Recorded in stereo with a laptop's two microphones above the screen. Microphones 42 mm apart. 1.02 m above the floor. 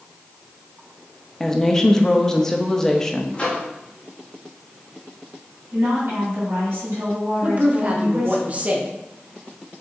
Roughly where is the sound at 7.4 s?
Right.